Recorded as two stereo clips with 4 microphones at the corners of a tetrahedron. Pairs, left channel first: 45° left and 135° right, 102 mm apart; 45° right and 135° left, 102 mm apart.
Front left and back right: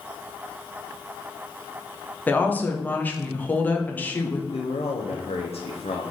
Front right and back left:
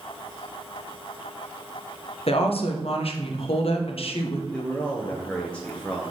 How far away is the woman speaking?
About 1.1 m.